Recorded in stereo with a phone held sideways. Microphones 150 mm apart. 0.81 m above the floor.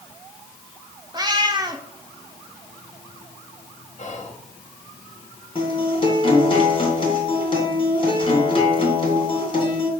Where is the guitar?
35° left (ahead or behind), 2.5 m.